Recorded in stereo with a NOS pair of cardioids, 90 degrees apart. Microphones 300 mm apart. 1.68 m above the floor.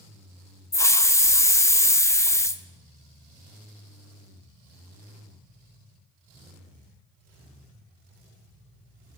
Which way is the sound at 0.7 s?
10° left.